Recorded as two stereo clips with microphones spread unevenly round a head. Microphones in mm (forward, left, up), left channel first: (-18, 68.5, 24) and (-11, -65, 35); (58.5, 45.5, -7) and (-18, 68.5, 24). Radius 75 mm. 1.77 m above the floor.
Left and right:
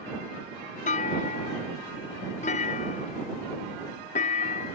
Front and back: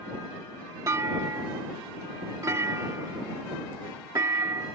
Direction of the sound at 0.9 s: 125° left.